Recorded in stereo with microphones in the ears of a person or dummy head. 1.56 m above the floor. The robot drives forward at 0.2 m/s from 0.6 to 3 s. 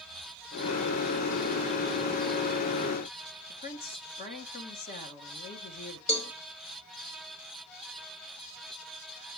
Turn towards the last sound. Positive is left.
turn(degrees=25)  # may be behind; listen again after turning